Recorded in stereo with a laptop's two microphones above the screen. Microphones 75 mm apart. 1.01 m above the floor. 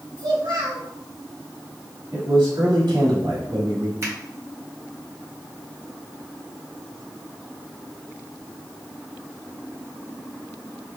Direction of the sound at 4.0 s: 40° right (ahead or behind).